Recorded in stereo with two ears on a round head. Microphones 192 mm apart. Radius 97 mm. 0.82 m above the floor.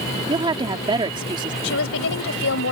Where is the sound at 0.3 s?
25° right (ahead or behind).